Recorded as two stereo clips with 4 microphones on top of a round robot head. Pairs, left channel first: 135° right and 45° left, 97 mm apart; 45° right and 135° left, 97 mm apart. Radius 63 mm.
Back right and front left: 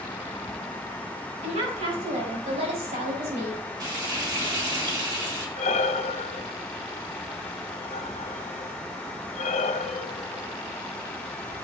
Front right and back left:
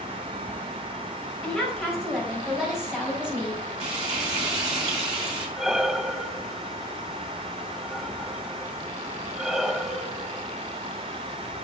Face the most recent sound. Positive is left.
turn(degrees=-145)